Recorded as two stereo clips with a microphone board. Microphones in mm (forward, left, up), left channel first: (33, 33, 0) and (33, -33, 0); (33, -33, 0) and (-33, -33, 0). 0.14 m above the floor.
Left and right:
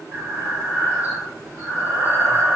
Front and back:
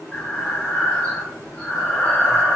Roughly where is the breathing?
Ahead right.